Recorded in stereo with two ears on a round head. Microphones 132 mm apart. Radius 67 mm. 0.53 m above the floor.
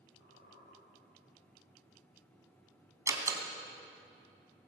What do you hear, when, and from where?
0.2 s a squeak: 80° left, 9.5 m
3.1 s a door slam: 25° right (ahead or behind), 3.5 m